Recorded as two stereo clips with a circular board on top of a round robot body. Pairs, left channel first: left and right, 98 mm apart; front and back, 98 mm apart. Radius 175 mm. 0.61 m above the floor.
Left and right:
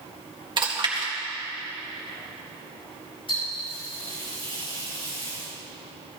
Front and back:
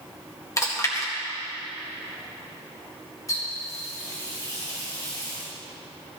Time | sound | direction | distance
0.6 | chewing | 55° right | 2.5 m
3.3 | a running tap | 55° left | 5 m